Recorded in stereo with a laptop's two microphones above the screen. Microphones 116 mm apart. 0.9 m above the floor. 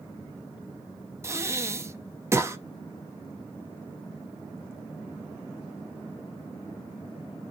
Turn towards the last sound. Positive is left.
turn(degrees=-25)  # may be behind; listen again after turning